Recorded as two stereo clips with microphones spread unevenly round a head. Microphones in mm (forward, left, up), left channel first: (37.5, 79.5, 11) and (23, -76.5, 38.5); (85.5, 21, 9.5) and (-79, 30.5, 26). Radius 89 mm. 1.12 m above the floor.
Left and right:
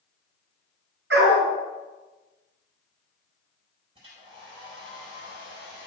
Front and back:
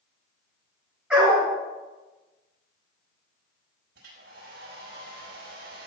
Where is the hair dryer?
155° right, 5 m.